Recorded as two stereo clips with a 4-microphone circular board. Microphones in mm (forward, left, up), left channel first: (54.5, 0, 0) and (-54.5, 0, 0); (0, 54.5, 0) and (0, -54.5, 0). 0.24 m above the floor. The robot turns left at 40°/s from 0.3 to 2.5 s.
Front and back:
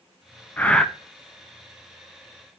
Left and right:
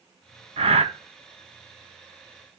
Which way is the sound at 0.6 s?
75° right.